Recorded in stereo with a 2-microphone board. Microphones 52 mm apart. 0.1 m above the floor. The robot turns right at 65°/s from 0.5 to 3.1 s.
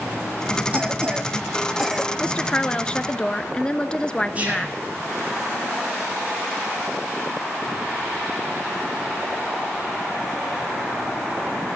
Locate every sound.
0.7 s a cough: 30° right (ahead or behind), 1.3 m; by 2.1 s centre (ahead or behind), 1.3 m
2.2 s a woman speaking: 20° left (ahead or behind), 1.1 m; by 4.8 s 15° left (ahead or behind), 1.1 m
4.3 s whispering: 25° right (ahead or behind), 6 m